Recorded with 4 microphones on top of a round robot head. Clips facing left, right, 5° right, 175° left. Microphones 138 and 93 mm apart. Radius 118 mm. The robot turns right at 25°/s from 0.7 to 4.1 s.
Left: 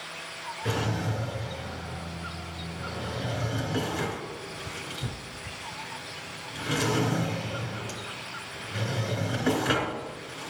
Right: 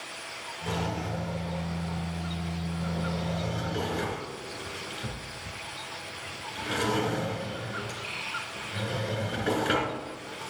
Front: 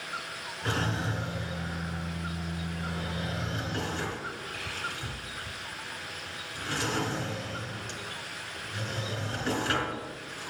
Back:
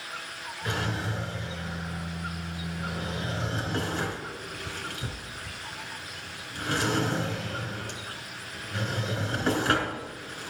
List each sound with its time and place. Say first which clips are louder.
0.7 s a drawer: left 2 dB, front 1 dB; 50° left, 2.5 m; by 10.5 s 135° left, 2.5 m